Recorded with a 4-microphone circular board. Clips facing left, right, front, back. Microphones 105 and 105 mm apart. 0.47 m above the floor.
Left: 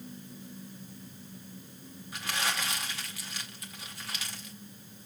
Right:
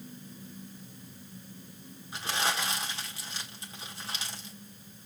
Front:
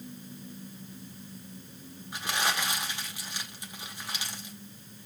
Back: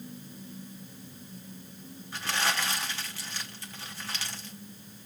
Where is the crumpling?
60° right, 1.5 m.